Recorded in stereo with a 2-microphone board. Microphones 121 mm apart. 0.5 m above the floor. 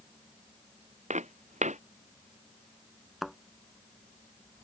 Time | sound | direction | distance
1.1 | footsteps | 85° right | ?
3.2 | a thud | centre (ahead or behind) | ?